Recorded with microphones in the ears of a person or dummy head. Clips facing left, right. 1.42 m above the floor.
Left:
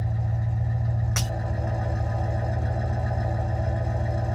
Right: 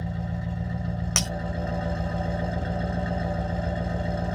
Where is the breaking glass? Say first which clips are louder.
Right 1 dB; 50° right (ahead or behind), 0.8 m.